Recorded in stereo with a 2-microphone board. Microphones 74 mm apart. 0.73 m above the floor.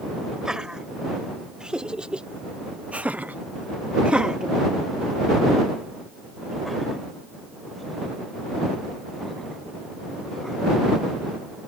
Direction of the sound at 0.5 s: 10° right (ahead or behind).